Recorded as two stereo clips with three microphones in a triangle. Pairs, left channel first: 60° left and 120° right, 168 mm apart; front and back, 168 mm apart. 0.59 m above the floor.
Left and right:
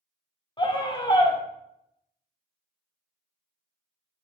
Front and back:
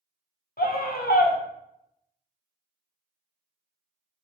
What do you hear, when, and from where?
0.6 s a scream: straight ahead, 1.3 m